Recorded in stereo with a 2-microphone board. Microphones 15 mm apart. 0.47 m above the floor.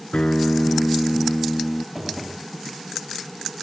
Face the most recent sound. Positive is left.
turn(degrees=-15)  # may be behind; listen again after turning